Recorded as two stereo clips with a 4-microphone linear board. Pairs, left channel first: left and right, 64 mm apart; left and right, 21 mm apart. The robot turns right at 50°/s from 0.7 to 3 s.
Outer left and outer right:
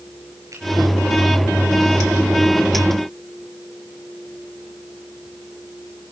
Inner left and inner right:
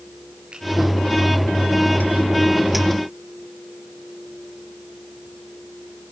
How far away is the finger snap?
About 6.5 m.